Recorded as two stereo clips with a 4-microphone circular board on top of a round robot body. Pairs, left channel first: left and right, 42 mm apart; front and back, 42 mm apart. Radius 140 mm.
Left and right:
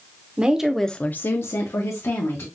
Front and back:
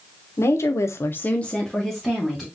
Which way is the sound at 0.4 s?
25° right.